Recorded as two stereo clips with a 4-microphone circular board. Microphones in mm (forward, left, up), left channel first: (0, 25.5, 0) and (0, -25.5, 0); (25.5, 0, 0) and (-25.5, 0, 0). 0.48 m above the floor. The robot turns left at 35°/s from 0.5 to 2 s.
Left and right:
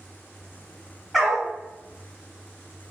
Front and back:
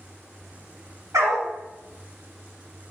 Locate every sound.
1.1 s a dog barking: straight behind, 1.3 m; by 1.5 s 170° left, 1.3 m